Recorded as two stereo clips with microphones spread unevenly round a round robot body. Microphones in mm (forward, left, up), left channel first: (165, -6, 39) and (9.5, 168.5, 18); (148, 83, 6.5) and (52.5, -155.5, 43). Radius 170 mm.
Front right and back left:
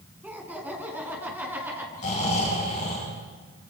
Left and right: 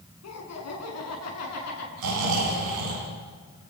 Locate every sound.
0.2 s laughter: 50° left, 7 m
2.0 s snoring: 120° right, 10 m